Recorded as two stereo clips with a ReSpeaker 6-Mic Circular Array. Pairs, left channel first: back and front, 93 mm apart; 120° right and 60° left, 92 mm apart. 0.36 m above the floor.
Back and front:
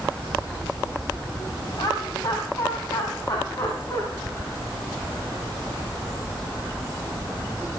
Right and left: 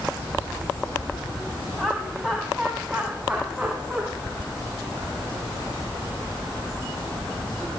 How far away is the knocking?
No knocking in this recording.